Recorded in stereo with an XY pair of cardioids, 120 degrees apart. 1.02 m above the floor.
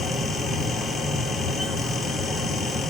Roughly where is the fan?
Ahead left.